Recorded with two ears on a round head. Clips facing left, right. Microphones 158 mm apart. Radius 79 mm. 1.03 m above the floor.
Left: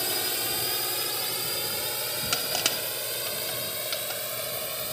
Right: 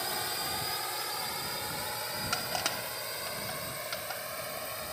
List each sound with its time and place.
0.0 s a drone: 40° left (ahead or behind); by 4.9 s 45° left (ahead or behind)
2.3 s crushing: 40° left (ahead or behind)